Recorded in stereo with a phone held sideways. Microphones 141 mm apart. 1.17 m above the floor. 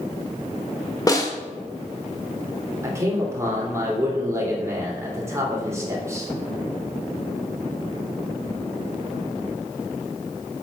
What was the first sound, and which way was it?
A snare drum, 25° left (ahead or behind).